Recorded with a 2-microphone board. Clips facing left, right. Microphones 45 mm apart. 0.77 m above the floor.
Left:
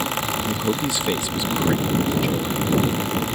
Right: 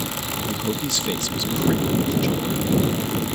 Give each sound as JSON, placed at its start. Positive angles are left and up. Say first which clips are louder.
{"t": 0.5, "sound": "a man speaking", "louder": "left 3 dB", "side_deg": 15}